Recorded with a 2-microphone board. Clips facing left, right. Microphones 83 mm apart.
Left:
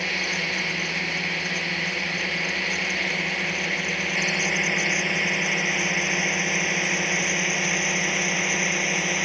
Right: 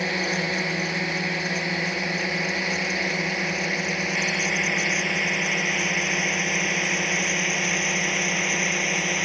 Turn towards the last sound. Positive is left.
turn(degrees=0)  # may be behind; listen again after turning